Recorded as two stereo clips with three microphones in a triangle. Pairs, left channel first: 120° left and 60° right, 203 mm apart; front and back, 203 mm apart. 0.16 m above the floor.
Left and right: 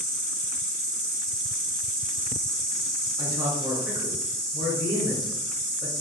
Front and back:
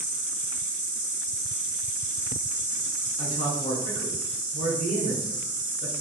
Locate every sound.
0.0 s an insect: 15° left, 1.9 m
3.2 s a man speaking: straight ahead, 1.4 m